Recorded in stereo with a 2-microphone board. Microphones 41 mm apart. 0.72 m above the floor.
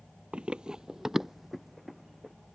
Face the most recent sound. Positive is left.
turn(degrees=0)  # may be behind; listen again after turning